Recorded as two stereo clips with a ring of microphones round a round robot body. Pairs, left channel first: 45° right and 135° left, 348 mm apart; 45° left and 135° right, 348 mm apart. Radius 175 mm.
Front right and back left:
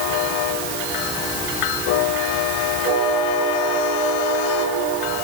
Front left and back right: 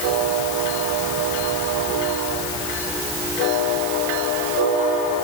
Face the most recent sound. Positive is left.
No sound to turn to.